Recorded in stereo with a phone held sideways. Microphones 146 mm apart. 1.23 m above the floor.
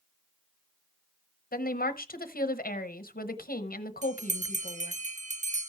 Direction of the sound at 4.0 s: 55° right (ahead or behind).